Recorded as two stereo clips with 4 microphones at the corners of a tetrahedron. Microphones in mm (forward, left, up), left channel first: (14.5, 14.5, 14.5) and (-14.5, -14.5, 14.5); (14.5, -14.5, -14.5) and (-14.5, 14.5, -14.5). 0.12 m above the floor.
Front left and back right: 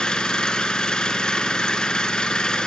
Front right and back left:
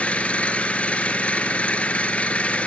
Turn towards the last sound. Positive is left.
turn(degrees=-15)